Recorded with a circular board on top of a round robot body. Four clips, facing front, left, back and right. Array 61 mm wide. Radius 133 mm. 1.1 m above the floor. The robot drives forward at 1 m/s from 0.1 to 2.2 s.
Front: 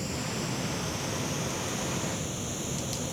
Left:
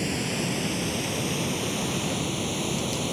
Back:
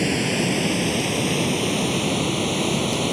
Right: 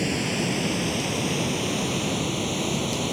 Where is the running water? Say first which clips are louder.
Right 3 dB, back 12 dB; 170° right.